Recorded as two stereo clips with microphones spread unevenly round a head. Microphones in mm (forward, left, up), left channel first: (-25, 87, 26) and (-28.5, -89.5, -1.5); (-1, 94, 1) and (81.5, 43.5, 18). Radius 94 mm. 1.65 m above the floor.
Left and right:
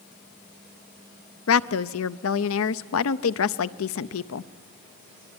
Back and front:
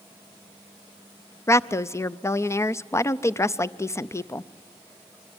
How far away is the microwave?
I don't hear a microwave.